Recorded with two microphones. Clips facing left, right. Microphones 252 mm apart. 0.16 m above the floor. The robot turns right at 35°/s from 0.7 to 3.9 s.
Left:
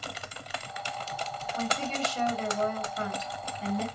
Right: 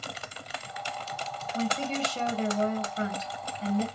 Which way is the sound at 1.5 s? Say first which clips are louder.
Right 3 dB; 120° right.